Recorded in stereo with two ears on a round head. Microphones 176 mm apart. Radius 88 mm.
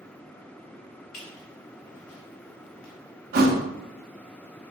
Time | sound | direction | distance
1.1 | a squeak | 80° left | 1.7 m
3.3 | a thud | 45° right (ahead or behind) | 0.7 m